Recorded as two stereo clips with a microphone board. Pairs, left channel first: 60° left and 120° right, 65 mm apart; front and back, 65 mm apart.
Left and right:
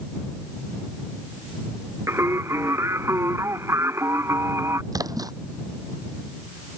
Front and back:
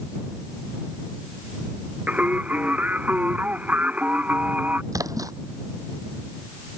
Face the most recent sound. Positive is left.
turn(degrees=-145)